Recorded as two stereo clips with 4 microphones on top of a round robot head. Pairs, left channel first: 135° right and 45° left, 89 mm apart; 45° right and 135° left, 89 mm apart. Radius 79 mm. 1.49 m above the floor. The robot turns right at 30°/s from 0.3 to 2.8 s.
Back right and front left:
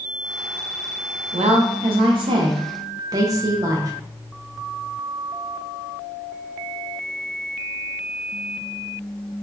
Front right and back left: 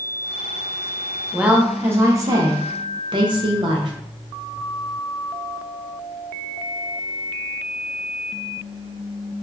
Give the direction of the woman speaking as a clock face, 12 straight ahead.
10 o'clock.